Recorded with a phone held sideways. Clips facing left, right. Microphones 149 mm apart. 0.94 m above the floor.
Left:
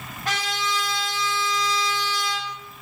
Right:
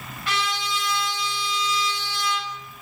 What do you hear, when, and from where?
0.2 s a trumpet: 40° left (ahead or behind), 3 m